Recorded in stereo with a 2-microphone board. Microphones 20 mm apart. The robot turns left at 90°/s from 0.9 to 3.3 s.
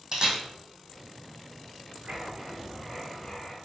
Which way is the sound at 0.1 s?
35° right (ahead or behind).